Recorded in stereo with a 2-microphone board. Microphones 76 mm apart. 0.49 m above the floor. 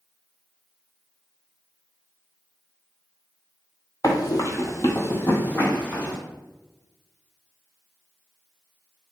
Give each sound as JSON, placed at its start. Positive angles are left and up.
{"t": 4.0, "sound": "running footsteps", "side_deg": 50, "distance_m": 0.7}